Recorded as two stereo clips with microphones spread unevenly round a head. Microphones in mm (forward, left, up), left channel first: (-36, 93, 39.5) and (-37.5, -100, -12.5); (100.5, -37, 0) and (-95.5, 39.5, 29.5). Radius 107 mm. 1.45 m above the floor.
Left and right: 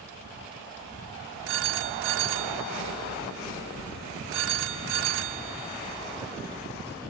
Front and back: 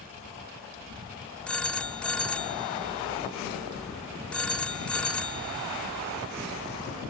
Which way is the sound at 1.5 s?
110° right.